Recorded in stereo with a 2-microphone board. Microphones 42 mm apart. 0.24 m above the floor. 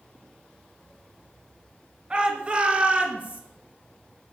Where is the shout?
25° right (ahead or behind), 3.5 m; by 3.4 s 35° right (ahead or behind), 3.5 m.